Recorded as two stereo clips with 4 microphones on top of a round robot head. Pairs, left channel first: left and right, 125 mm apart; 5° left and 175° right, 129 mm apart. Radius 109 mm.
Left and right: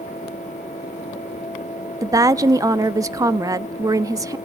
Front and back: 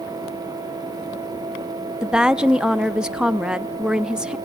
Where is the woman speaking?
95° right, 0.7 m.